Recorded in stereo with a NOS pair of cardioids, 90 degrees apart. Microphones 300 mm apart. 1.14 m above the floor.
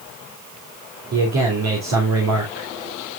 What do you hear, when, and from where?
1.1 s a man speaking: 60° right, 3.5 m